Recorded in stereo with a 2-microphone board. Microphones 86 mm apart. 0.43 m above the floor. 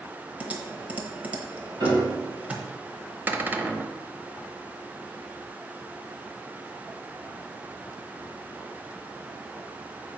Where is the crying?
I don't hear crying.